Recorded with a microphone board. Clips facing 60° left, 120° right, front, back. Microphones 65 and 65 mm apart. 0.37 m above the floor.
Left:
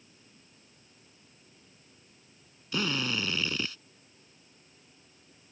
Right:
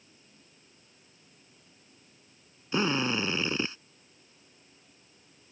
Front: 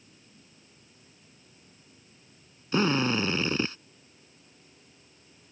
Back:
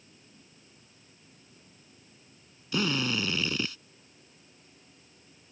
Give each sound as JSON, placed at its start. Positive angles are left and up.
{"t": 2.7, "sound": "a drill", "azimuth_deg": -55}